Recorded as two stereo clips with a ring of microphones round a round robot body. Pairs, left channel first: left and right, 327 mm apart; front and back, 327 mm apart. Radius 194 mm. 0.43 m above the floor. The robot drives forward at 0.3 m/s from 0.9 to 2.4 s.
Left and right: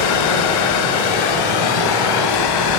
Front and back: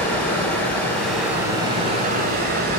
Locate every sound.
0.0 s running water: 85° left, 0.8 m; by 2.8 s 115° left, 0.9 m